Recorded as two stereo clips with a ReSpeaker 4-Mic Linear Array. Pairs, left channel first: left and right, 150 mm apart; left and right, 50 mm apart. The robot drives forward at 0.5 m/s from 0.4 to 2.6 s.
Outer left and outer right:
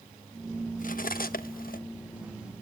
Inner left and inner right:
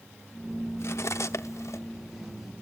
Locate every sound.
0.8 s cutlery clinking: 60° left (ahead or behind), 0.8 m; by 1.8 s 70° left (ahead or behind), 0.7 m